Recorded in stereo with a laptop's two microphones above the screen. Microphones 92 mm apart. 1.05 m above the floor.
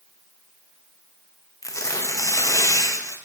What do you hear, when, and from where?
1.6 s tearing paper: 35° left (ahead or behind), 0.5 m